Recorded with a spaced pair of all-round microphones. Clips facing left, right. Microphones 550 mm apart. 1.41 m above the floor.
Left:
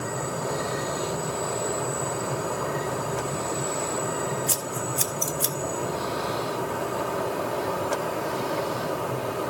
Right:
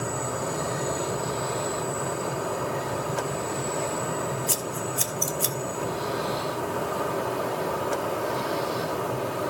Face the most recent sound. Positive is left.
turn(degrees=40)  # may be behind; listen again after turning